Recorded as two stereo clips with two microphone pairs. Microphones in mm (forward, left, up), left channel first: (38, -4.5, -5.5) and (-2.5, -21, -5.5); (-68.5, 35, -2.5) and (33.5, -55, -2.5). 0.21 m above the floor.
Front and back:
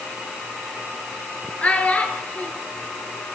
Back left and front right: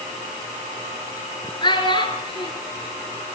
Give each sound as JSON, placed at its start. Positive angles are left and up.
{"t": 1.6, "sound": "a child speaking", "azimuth_deg": 85, "distance_m": 3.0}